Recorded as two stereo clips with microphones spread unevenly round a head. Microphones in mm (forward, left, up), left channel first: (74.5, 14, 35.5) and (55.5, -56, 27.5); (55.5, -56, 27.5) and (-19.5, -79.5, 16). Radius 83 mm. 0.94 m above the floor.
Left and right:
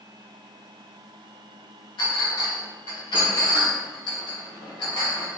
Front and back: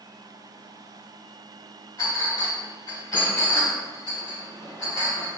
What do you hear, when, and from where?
2.0 s a clink: 80° left, 3.5 m